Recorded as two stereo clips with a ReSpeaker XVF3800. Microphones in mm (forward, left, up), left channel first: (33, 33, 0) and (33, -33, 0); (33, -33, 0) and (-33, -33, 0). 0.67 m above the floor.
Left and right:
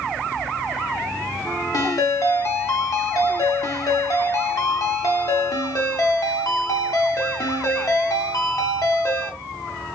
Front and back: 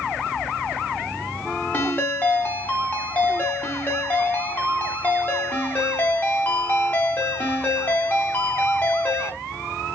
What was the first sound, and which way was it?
A ringtone, 60° left.